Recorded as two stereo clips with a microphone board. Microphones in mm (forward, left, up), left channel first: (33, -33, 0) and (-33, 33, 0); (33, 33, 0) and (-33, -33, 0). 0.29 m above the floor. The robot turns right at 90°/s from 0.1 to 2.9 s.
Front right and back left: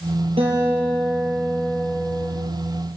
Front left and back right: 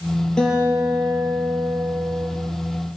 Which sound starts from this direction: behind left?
A guitar, at 0.4 s.